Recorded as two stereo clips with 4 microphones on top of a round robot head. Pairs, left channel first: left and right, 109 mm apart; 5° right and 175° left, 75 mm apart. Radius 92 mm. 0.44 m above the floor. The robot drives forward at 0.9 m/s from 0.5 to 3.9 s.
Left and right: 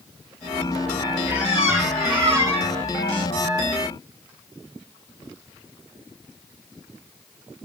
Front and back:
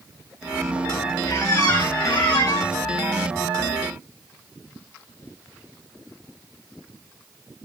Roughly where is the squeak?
Ahead.